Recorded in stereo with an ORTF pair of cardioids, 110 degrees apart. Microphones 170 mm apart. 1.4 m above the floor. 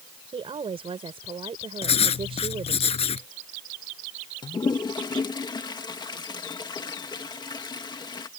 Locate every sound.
0.3 s a woman speaking: 35° right
1.8 s writing: 35° left
4.4 s a toilet flushing: 25° left